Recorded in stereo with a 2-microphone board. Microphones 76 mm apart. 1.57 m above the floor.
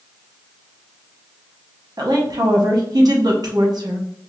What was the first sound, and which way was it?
A woman speaking, 50° right (ahead or behind).